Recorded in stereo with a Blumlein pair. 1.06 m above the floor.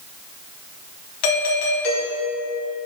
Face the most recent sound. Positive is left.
turn(degrees=45)